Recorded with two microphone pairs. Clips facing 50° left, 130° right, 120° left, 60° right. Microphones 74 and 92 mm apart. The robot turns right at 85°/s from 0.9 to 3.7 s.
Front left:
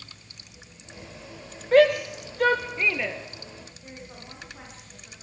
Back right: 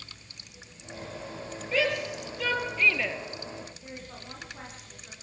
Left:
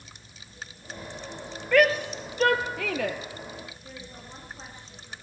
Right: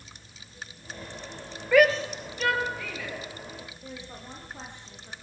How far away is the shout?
About 2.5 m.